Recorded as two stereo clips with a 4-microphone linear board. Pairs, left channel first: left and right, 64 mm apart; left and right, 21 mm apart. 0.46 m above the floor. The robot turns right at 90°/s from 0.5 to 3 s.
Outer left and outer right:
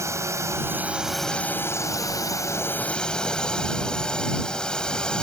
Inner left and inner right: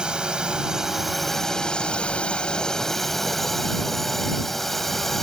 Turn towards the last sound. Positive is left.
turn(degrees=165)